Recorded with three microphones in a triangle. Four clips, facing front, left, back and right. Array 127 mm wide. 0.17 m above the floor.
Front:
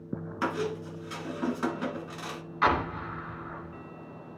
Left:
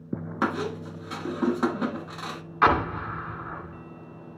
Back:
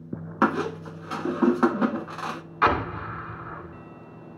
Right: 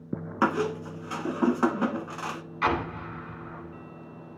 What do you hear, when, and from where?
0.4 s a squeak: 170° right, 0.8 m
2.6 s an explosion: 120° left, 1.3 m